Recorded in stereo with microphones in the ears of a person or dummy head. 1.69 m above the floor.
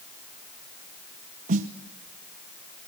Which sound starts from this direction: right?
A snare drum, at 1.5 s.